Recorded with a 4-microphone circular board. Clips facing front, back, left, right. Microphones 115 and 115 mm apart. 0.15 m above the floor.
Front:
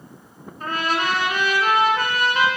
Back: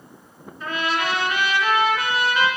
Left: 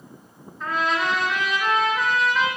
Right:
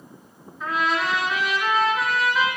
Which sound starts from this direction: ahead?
A trumpet, at 0.6 s.